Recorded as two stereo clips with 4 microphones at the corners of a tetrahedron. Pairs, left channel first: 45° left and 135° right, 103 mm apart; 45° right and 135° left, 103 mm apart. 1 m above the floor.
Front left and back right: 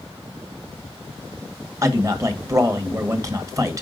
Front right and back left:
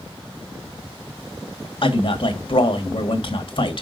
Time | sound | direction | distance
1.8 | a man speaking | 80° right | 1.4 m